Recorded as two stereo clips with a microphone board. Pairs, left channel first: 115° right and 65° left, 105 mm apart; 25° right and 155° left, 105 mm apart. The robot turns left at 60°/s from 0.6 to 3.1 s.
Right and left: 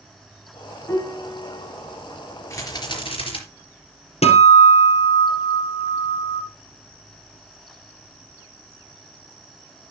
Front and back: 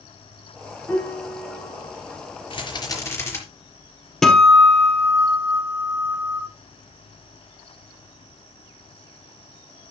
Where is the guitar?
110° right, 2.5 m.